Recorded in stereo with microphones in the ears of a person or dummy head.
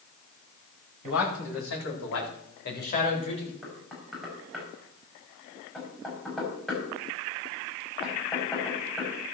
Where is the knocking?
5° right (ahead or behind), 5 m.